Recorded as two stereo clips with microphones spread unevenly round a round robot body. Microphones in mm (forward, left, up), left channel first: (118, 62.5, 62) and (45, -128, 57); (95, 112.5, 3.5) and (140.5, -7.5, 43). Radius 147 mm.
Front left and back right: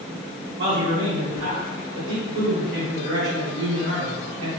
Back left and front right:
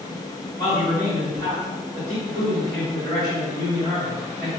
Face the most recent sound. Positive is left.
turn(degrees=-105)